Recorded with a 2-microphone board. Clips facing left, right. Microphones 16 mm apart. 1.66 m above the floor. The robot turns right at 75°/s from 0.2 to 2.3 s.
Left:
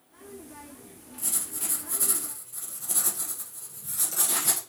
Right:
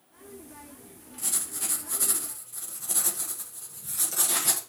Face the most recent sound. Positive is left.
turn(degrees=-10)  # may be behind; listen again after turning